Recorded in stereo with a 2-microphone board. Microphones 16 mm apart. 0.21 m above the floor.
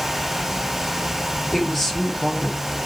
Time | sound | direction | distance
1.5 | a woman speaking | 15° left (ahead or behind) | 5.5 m